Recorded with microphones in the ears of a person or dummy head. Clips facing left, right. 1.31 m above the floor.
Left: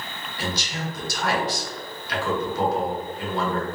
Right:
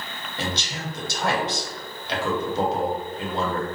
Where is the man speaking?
20° right (ahead or behind), 0.8 m.